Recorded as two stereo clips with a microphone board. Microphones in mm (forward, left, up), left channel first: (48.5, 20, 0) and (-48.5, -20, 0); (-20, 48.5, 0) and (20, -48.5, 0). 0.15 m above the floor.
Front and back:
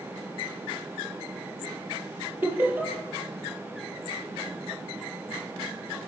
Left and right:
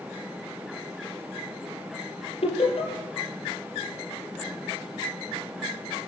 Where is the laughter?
130° left, 4.5 m.